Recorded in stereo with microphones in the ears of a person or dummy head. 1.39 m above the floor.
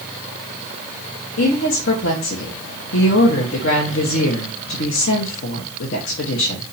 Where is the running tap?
I don't hear a running tap.